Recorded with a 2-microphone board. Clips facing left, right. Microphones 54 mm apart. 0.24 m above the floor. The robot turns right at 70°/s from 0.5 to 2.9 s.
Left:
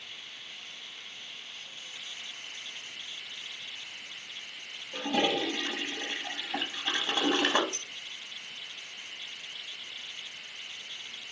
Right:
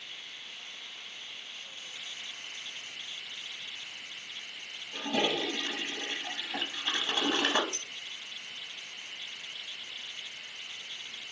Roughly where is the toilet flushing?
Centre.